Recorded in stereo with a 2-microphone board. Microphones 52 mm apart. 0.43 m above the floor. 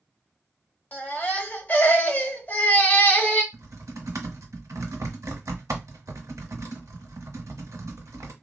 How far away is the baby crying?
About 0.8 m.